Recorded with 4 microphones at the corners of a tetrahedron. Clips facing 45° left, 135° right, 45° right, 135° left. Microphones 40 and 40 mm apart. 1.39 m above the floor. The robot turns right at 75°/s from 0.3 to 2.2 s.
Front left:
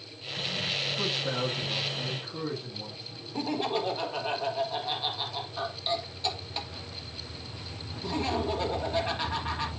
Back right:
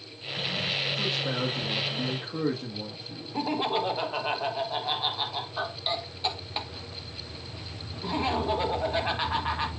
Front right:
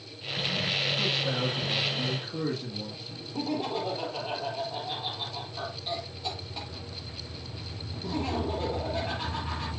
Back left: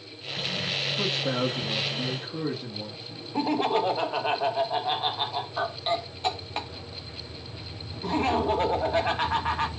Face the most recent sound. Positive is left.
turn(degrees=160)